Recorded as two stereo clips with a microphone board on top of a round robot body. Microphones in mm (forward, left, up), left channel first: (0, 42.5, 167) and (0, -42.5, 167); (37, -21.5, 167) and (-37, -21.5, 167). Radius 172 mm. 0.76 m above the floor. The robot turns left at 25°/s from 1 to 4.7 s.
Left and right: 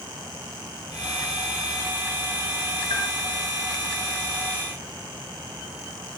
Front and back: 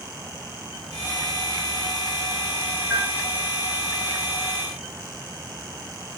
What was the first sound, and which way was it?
A bell, 55° left.